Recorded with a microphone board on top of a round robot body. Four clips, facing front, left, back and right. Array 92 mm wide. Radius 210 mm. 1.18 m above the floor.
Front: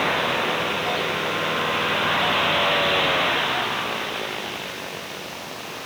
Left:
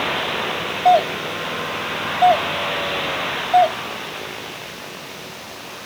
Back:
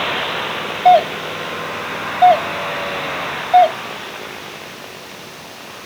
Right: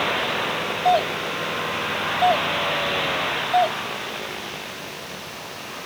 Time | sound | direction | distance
0.8 | a doorbell | 165° left | ?